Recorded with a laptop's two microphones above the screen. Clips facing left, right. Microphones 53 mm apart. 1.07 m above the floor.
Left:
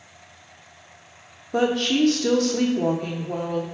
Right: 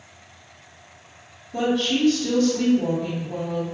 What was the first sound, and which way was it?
A woman speaking, 70° left (ahead or behind).